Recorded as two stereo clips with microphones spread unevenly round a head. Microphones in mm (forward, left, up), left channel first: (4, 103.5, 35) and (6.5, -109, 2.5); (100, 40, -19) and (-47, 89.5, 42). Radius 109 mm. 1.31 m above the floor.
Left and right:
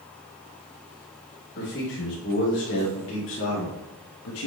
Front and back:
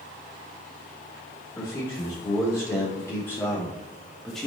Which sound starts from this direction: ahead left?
A man speaking, at 1.6 s.